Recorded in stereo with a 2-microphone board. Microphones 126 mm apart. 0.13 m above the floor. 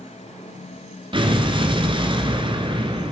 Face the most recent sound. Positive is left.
turn(degrees=-40)  # may be behind; listen again after turning